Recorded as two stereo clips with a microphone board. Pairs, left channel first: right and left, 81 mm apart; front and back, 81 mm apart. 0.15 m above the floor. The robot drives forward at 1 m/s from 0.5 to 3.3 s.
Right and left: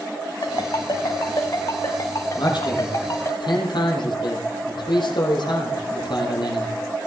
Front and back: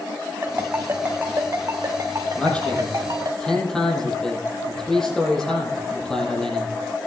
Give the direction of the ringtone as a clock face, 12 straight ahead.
4 o'clock.